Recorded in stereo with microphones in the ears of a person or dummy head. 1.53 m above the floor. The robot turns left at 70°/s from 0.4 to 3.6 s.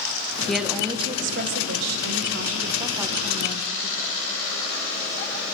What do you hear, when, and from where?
0.5 s a woman speaking: straight ahead, 1.6 m; by 4.2 s 140° left, 1.6 m